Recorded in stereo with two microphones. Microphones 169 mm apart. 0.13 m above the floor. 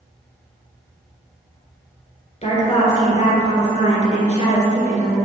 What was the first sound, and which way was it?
A woman speaking, 40° left (ahead or behind).